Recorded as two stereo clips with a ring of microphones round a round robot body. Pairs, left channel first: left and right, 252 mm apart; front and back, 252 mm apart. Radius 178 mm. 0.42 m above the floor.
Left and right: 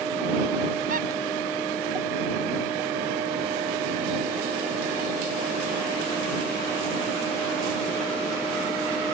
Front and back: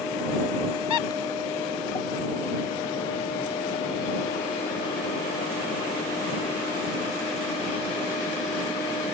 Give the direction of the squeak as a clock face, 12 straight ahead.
1 o'clock.